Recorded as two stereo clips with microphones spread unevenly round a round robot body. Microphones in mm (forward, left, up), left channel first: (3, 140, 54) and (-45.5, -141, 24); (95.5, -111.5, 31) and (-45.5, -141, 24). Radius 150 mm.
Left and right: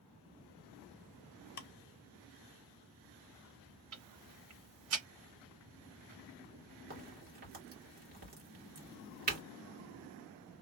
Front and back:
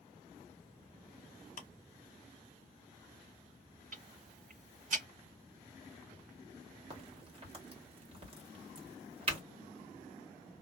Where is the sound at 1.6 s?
25° left, 0.7 m.